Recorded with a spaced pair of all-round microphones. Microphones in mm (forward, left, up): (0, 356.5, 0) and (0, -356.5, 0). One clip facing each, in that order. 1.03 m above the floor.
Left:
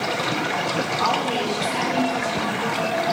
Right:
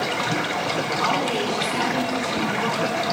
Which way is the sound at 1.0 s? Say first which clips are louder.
Even; 25° left (ahead or behind).